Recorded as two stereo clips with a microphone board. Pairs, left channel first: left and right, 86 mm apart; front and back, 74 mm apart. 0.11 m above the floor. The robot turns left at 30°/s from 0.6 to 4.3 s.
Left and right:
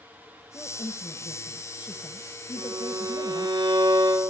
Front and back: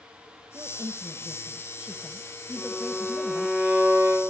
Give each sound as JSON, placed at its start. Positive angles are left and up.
{"t": 0.5, "sound": "a woman speaking", "azimuth_deg": 145, "distance_m": 2.5}
{"t": 2.6, "sound": "a violin", "azimuth_deg": -95, "distance_m": 4.5}